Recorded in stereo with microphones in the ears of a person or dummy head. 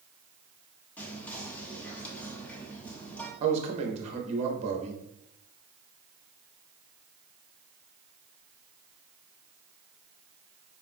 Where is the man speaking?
35° right (ahead or behind), 0.7 m.